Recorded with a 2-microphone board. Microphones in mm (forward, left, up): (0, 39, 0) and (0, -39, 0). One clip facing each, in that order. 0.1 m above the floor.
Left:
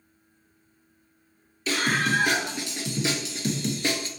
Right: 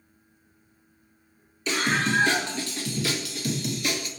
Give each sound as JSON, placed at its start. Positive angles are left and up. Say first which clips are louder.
{"t": 1.7, "sound": "a scream", "louder": "even", "side_deg": 5, "distance_m": 1.7}